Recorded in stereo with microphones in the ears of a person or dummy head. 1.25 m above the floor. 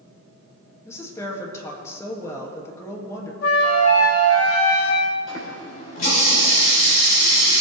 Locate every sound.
0.8 s a woman speaking: 15° left (ahead or behind), 2.0 m
3.4 s a flute: 80° left, 3 m
5.3 s a running tap: 55° left (ahead or behind), 3.5 m